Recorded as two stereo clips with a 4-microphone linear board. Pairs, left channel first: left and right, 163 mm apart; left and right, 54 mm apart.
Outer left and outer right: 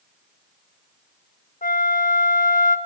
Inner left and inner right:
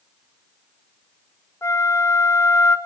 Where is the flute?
55° left (ahead or behind), 0.8 m.